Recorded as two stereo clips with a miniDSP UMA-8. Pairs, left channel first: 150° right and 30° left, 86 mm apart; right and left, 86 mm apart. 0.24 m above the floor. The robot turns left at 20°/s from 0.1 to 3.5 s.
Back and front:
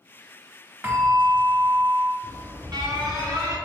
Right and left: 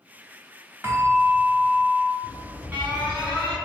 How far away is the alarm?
About 1.8 m.